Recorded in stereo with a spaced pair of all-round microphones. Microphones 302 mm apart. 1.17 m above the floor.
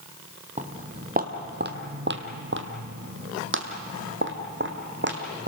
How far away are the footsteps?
About 1.5 m.